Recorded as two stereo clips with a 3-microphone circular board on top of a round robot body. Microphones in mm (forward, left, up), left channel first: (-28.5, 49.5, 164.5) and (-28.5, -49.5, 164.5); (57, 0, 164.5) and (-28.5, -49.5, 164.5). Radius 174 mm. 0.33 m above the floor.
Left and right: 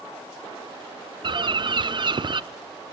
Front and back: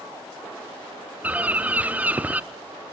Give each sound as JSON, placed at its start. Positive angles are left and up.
{"t": 1.2, "sound": "a bird", "azimuth_deg": -80, "distance_m": 0.8}